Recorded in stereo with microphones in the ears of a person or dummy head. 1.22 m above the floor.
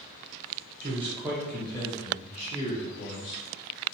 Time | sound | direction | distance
0.8 | a man speaking | 35° right (ahead or behind) | 0.8 m